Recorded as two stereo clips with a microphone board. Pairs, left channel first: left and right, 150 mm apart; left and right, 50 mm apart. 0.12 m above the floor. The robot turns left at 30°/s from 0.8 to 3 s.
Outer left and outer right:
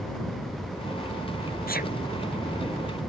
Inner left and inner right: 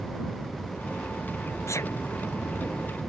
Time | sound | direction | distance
1.7 | a sneeze | 80° left | ?